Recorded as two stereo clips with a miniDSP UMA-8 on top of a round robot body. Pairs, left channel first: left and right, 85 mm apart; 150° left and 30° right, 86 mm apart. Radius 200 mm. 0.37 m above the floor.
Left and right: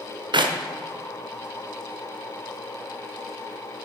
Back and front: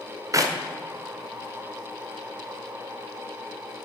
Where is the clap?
75° right, 1.7 m.